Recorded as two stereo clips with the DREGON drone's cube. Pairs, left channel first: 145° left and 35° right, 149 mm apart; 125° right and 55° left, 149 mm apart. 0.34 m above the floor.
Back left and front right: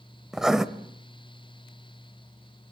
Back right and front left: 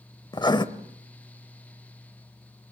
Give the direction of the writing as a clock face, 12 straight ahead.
4 o'clock.